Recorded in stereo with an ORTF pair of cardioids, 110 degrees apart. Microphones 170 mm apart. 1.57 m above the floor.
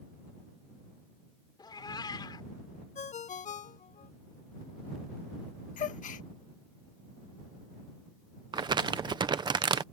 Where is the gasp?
50° left.